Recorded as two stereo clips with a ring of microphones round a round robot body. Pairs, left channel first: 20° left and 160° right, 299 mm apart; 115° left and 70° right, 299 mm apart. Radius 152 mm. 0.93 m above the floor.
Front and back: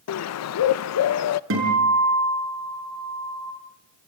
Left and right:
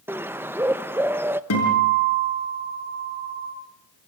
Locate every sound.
0.1 s a bird: 15° left, 0.6 m
1.5 s a guitar: 155° left, 7 m